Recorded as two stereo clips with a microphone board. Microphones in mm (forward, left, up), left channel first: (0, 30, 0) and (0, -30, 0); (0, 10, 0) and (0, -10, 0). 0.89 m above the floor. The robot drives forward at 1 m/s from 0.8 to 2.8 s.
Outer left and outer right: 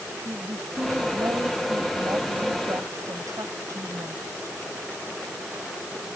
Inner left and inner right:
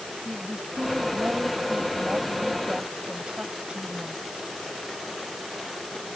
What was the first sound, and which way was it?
A woman speaking, 50° right (ahead or behind).